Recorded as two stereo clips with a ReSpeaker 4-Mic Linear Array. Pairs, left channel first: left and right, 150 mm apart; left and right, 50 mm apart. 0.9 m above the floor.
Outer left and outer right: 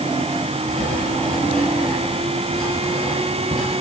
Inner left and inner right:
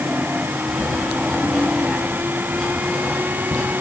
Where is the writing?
5° left (ahead or behind), 6.5 m.